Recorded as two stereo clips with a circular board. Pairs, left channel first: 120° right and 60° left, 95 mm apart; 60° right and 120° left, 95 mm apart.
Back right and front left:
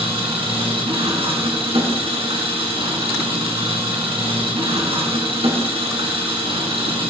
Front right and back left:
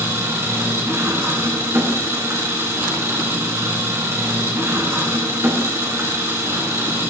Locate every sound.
0.0 s an engine running: 60° left, 3.5 m